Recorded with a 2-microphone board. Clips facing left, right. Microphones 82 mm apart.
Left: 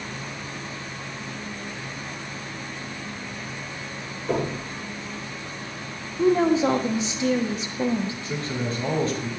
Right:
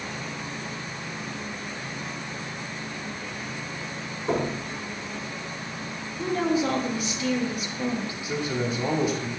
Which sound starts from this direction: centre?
A man speaking, at 8.2 s.